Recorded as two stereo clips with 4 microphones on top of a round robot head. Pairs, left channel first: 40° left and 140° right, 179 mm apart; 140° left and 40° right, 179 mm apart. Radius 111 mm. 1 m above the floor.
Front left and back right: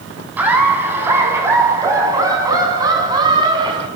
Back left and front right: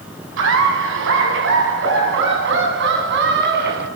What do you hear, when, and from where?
0.4 s laughter: 60° right, 8 m; by 3.9 s 75° right, 9 m